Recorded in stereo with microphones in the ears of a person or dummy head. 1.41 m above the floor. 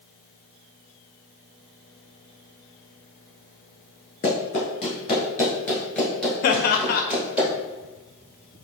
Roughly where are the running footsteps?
Left.